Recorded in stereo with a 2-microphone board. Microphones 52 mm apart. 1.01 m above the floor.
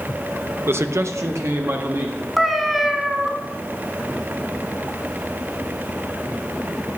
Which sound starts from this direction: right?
A man speaking, at 0.7 s.